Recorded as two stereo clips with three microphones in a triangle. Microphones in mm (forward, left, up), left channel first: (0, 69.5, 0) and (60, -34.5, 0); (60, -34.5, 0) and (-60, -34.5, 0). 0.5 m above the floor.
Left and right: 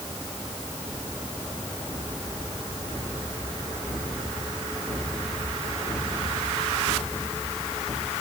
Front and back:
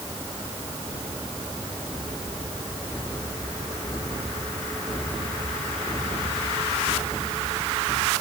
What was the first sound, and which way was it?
Only background noise.